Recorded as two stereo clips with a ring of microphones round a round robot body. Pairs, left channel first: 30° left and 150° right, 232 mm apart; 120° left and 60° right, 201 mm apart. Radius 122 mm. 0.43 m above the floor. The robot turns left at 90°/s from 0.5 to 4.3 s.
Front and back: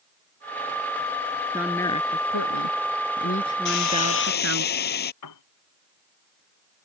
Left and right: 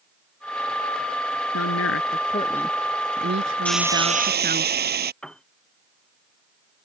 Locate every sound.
1.5 s a woman speaking: 135° left; by 4.7 s 115° right
3.6 s a hiss: 40° left; by 5.1 s 20° right
5.2 s a piano: 35° left